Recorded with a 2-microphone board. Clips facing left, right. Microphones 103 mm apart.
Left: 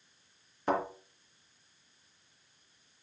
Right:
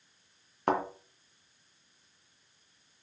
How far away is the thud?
About 3 m.